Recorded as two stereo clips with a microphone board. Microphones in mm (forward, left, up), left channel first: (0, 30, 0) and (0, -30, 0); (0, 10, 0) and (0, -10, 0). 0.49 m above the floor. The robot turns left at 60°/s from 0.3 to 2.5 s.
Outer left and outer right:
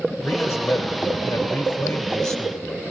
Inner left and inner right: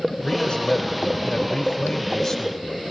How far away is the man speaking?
About 2.5 m.